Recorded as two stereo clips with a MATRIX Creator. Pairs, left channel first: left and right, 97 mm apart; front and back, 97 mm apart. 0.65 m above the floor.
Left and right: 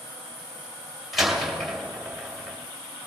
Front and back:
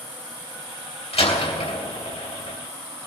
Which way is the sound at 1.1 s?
Straight ahead.